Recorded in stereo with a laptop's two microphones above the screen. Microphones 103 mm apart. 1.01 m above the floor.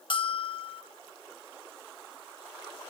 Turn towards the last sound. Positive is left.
turn(degrees=55)  # may be behind; listen again after turning